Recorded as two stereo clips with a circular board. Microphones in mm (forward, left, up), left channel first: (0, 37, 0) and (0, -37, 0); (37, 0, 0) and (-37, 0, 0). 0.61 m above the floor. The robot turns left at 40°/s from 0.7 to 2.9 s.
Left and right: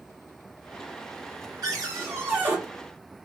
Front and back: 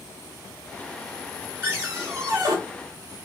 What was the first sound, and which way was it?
A cupboard door, 120° right.